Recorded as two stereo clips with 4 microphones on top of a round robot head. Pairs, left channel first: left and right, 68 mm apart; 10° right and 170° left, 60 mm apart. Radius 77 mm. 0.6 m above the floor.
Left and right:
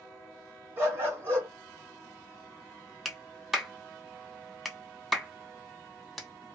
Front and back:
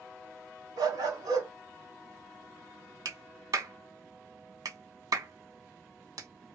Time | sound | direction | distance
0.8 | a dog barking | 145° right | 1.9 m
3.0 | a clap | 175° right | 1.9 m